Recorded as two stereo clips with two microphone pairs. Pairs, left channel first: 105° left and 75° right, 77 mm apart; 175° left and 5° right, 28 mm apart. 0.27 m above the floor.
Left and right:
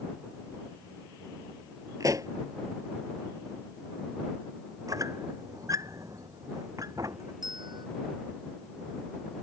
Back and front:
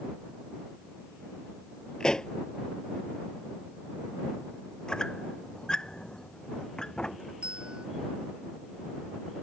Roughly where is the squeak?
Behind right.